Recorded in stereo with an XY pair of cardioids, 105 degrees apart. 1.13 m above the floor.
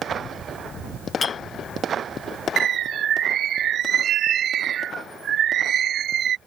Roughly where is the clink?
Ahead left.